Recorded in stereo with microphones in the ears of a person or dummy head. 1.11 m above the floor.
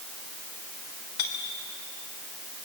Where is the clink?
90° left, 3 m.